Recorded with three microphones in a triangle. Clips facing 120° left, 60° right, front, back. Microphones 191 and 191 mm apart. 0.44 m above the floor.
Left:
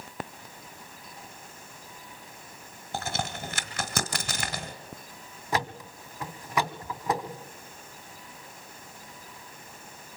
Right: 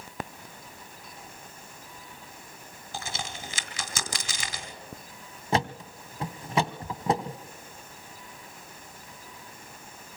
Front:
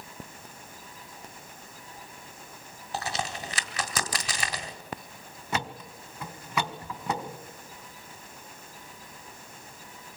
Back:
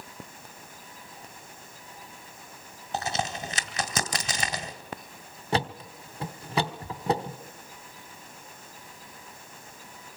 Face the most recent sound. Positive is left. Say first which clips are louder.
# right 3 dB, back 5 dB
turn(degrees=-125)